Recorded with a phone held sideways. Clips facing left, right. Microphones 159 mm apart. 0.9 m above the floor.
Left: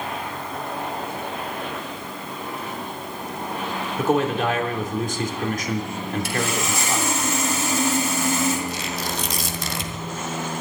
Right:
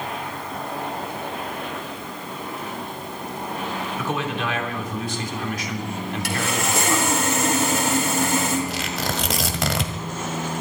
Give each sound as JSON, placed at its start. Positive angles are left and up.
{"t": 4.0, "sound": "a man speaking", "side_deg": 45, "distance_m": 3.0}
{"t": 6.2, "sound": "sawing", "side_deg": -65, "distance_m": 4.0}
{"t": 8.7, "sound": "tearing paper", "side_deg": -80, "distance_m": 1.8}